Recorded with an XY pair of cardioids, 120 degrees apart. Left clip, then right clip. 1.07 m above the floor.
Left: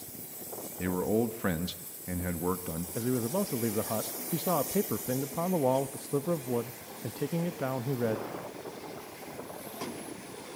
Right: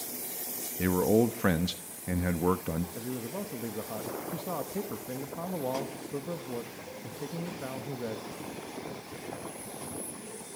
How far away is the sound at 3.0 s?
About 1.0 m.